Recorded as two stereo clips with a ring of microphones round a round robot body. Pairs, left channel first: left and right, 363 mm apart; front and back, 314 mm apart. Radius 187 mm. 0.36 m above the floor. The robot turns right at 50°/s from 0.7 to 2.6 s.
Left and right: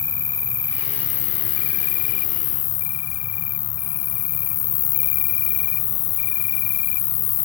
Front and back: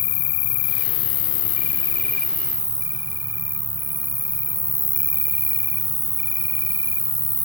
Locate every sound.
0.0 s an insect: 10° left, 0.8 m; by 7.5 s 105° left, 0.8 m